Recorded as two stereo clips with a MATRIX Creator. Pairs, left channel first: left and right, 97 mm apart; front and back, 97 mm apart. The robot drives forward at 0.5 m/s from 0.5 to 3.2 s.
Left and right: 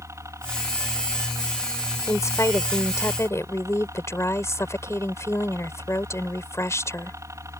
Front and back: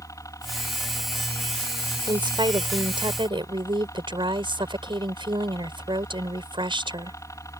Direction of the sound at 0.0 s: 40° right.